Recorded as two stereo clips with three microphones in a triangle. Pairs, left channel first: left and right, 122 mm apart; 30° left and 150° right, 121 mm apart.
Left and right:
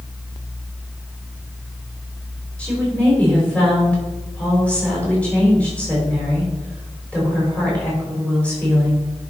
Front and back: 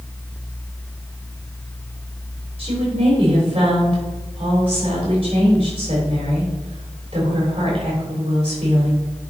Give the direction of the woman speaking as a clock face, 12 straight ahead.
6 o'clock.